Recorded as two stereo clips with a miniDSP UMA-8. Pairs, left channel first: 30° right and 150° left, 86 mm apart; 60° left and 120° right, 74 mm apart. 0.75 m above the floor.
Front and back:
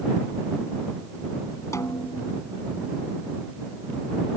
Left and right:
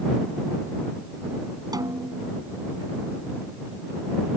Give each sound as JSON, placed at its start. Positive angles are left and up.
{"t": 1.7, "sound": "a snare drum", "azimuth_deg": -85}